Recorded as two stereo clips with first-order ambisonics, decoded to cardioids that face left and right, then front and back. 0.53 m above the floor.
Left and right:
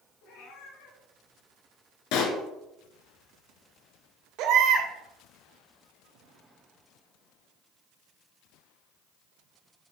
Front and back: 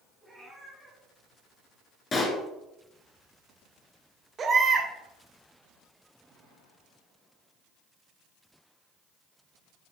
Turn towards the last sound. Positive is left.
turn(degrees=-115)